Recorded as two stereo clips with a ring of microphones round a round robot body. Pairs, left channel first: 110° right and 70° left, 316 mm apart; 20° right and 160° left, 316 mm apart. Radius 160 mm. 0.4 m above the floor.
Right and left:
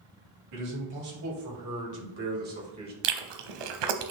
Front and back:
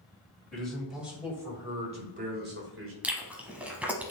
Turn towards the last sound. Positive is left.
turn(degrees=70)